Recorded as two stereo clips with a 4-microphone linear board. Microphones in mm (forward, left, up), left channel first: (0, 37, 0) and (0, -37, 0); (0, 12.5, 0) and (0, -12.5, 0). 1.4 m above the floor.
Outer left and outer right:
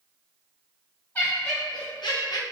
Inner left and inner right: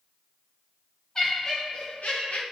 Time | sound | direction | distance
1.1 | laughter | 40° left (ahead or behind) | 0.8 m